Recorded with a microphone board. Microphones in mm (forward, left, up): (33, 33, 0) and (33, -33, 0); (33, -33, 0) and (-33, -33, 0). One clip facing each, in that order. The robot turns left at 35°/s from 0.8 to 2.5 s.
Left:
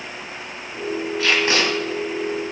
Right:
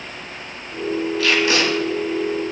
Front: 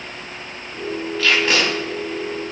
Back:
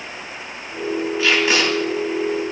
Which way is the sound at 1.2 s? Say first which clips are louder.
Even, even; 120° left.